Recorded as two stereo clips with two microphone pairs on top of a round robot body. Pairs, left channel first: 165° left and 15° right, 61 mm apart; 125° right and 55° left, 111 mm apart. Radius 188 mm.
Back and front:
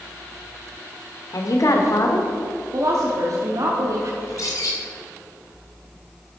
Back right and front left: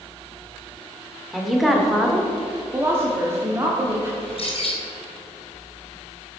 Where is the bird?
165° right, 3 m.